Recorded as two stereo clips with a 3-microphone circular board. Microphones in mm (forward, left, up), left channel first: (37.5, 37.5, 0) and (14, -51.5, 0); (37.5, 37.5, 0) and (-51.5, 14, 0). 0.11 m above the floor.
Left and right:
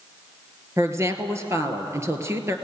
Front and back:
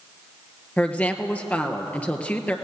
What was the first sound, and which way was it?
A woman speaking, 55° right.